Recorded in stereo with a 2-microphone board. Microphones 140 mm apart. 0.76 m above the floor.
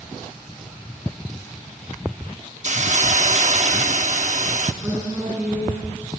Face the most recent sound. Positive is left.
turn(degrees=-10)  # may be behind; listen again after turning